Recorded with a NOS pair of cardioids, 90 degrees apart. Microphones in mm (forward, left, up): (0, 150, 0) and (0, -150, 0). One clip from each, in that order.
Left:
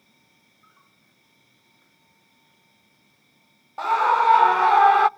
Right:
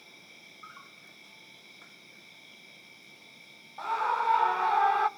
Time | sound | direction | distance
0.0 | an insect | 65° right | 1.1 m
3.8 | a scream | 40° left | 0.5 m